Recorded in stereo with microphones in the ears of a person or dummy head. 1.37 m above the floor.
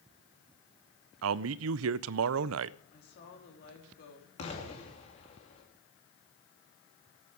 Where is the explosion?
40° left (ahead or behind), 3 m.